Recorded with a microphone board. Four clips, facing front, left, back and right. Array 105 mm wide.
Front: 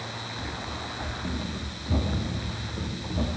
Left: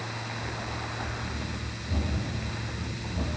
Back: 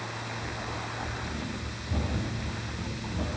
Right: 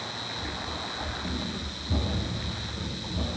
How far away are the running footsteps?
About 6.5 m.